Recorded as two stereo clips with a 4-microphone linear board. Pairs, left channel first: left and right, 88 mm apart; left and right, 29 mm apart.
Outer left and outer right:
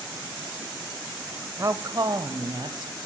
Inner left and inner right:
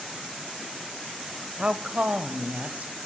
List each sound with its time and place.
1.6 s a woman speaking: 40° right (ahead or behind), 1.3 m; by 2.9 s 60° right (ahead or behind), 1.8 m